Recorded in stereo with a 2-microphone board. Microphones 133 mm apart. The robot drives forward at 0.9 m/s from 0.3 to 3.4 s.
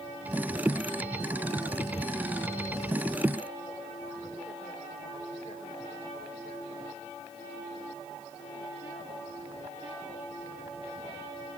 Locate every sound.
Only background noise.